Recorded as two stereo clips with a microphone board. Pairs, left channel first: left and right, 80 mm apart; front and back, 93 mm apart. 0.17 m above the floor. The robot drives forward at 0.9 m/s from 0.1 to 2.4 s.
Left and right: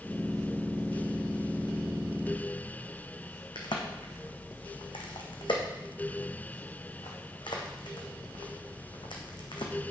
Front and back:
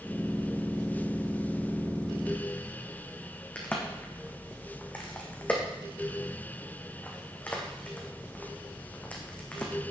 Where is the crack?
75° left, 2 m.